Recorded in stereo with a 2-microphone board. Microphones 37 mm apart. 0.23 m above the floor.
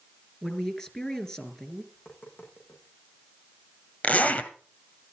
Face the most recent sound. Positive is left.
turn(degrees=45)  # may be behind; listen again after turning